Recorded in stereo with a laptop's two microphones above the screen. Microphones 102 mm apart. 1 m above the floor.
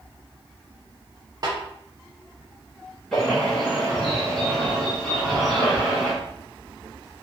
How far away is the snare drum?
About 0.7 m.